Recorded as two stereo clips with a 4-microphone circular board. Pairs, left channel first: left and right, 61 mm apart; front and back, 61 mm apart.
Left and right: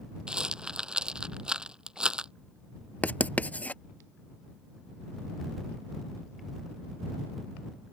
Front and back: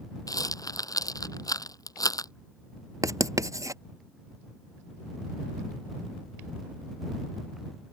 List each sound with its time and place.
0.3 s a rattle: 15° right
3.0 s writing: 155° left